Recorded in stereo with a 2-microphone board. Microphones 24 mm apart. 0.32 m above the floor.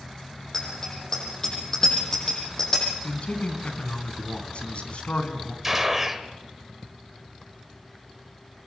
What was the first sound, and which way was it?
A bicycle bell, 25° left (ahead or behind).